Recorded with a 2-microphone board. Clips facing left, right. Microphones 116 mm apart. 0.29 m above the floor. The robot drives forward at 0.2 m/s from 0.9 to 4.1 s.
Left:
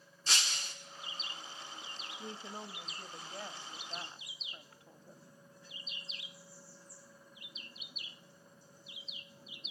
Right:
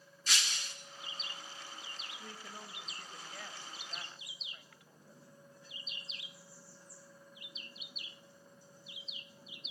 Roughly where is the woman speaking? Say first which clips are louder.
Left 7 dB; left.